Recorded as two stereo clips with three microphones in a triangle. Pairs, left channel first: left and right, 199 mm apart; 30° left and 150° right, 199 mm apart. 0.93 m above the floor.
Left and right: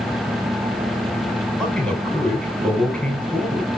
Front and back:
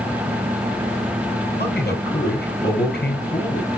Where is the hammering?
No hammering in this recording.